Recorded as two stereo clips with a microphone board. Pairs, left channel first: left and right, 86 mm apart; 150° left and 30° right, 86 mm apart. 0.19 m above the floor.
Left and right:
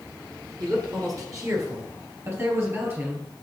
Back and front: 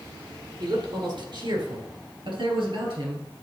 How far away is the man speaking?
About 3 m.